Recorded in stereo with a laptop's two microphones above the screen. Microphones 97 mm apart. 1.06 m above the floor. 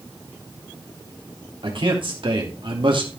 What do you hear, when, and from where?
1.6 s a man speaking: 65° right (ahead or behind), 3.5 m